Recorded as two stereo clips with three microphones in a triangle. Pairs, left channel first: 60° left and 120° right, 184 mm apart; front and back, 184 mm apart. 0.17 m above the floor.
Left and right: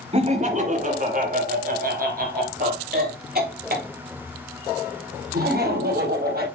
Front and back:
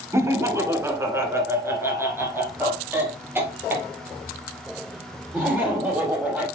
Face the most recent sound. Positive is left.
turn(degrees=-100)